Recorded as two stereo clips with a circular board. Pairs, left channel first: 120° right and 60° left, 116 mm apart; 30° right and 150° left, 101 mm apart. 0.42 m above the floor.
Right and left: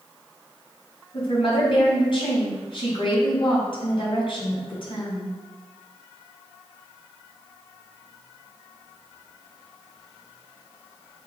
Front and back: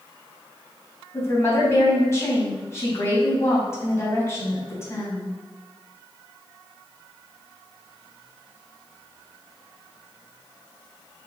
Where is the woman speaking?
90° right, 3 m.